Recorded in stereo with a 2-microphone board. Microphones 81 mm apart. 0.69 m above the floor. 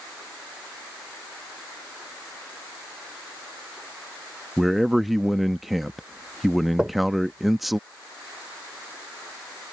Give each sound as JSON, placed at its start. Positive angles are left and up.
{"t": 4.6, "sound": "a man speaking", "side_deg": 0}
{"t": 6.8, "sound": "knocking", "side_deg": -10}